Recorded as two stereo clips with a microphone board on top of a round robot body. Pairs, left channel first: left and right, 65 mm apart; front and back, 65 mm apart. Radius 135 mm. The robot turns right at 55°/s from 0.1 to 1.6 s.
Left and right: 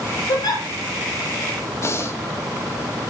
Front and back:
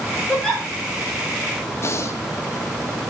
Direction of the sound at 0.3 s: 75° left.